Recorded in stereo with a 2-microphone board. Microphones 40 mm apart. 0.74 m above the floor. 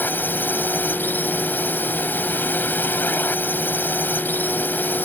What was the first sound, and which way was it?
A drone, 50° left (ahead or behind).